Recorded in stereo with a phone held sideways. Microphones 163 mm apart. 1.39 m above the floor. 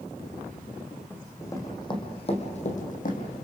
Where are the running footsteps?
10° left (ahead or behind), 3.5 m; by 3.3 s 60° left (ahead or behind), 3 m.